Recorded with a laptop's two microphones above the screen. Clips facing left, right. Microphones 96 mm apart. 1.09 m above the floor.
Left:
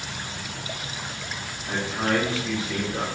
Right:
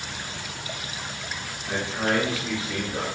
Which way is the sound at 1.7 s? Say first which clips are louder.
Even; 20° right (ahead or behind).